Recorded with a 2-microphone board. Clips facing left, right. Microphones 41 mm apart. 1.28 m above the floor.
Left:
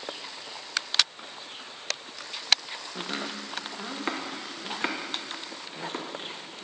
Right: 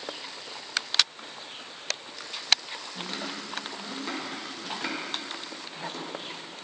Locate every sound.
3.0 s chopping: 40° left (ahead or behind), 0.7 m